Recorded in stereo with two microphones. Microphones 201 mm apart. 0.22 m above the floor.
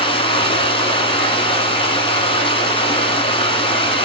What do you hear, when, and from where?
0.0 s running water: 25° left (ahead or behind), 1.3 m